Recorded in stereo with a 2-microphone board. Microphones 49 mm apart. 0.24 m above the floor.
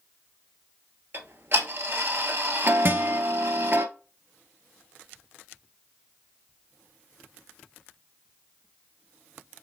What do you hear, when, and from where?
1.1 s ticking: 50° right (ahead or behind), 1.0 m
2.9 s a guitar: 50° right (ahead or behind), 1.1 m